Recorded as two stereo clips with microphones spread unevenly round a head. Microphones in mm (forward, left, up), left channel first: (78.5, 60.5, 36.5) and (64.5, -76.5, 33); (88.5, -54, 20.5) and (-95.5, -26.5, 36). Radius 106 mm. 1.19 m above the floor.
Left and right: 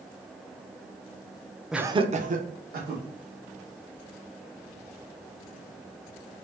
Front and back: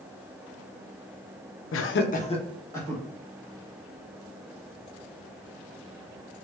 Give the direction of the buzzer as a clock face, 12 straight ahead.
No buzzer in this recording.